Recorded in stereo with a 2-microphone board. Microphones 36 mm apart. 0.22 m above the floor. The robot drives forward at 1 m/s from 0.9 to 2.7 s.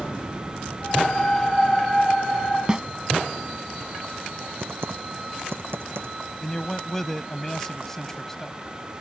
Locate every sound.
2.7 s a snare drum: 25° right (ahead or behind)
4.6 s typing on a keyboard: 85° right
6.4 s a man speaking: 10° left (ahead or behind)